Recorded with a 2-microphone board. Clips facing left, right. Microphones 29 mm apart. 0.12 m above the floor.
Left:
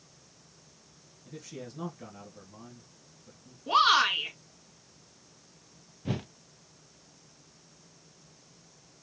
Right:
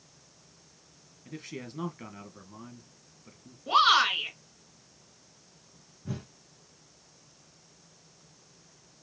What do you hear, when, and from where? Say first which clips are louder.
1.2 s a man speaking: right 2 dB; 45° right (ahead or behind), 1.9 m
3.7 s a shout: right 1 dB; 5° right (ahead or behind), 1.7 m
6.0 s a whoosh: left 5 dB; 65° left (ahead or behind), 0.5 m